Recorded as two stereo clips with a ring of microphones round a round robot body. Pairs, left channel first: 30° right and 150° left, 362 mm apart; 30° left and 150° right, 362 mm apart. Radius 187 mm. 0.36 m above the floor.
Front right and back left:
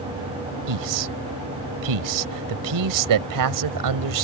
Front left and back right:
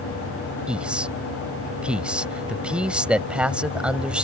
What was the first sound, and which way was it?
A man speaking, 125° left.